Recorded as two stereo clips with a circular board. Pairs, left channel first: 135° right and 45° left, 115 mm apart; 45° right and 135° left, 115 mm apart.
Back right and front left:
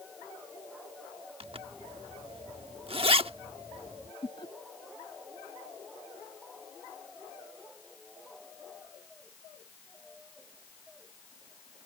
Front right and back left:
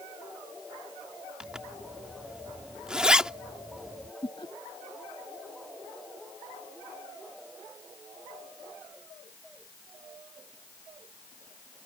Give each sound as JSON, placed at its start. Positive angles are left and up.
{"t": 1.4, "sound": "a zipper", "azimuth_deg": 55}
{"t": 4.2, "sound": "laughter", "azimuth_deg": -90}